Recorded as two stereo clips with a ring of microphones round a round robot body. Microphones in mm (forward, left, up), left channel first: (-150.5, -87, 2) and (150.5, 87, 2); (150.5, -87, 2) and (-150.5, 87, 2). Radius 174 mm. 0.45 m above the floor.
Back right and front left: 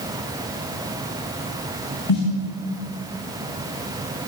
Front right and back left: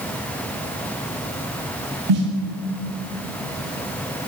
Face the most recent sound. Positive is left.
turn(degrees=180)